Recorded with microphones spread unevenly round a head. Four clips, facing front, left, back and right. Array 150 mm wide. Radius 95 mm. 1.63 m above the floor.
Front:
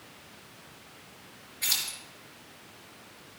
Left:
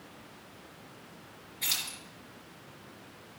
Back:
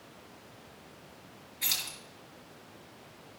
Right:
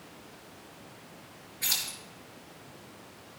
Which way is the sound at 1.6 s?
175° right.